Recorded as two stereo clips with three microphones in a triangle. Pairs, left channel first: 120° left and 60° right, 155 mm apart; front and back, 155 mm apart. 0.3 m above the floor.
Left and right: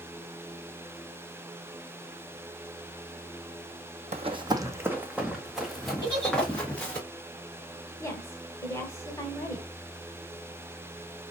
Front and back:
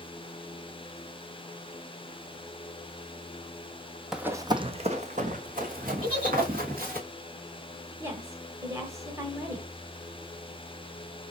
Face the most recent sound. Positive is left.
turn(degrees=145)